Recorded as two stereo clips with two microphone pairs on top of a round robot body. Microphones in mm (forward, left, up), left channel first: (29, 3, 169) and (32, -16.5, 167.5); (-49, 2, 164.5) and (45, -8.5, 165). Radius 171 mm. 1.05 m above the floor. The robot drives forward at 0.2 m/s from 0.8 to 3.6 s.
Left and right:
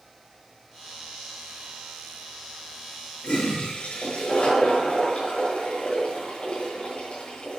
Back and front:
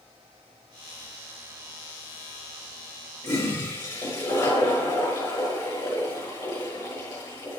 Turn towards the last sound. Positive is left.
turn(degrees=130)